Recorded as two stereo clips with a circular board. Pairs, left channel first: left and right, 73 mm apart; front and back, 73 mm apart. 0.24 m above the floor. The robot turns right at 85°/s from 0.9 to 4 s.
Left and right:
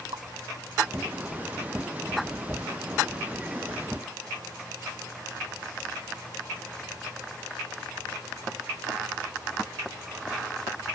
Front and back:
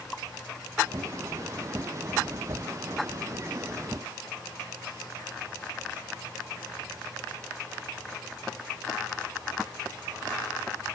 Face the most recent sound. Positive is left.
turn(degrees=180)